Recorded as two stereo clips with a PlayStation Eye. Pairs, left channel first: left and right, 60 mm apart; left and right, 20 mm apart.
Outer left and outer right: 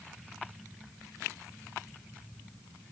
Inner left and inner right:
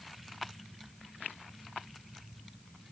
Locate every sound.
Only background noise.